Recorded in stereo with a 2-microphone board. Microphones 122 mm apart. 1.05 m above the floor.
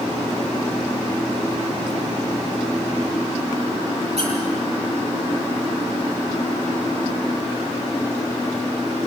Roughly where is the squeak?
Right.